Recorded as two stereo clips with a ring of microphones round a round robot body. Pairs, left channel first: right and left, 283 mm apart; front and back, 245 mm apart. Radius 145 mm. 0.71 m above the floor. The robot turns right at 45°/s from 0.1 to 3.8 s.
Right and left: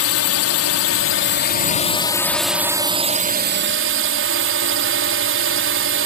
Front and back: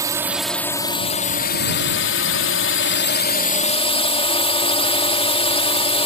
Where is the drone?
105° right; by 6.1 s 60° left.